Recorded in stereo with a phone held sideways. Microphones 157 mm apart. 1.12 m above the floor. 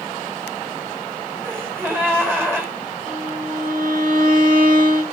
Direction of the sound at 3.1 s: 70° right (ahead or behind).